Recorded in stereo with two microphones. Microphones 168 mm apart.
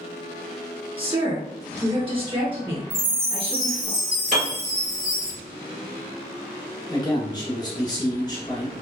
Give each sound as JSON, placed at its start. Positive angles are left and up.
{"t": 1.0, "sound": "a woman speaking", "side_deg": -30, "distance_m": 1.3}
{"t": 2.9, "sound": "a chime", "side_deg": -65, "distance_m": 1.4}
{"t": 4.3, "sound": "a piano", "side_deg": -55, "distance_m": 1.4}
{"t": 6.9, "sound": "a man speaking", "side_deg": 25, "distance_m": 1.4}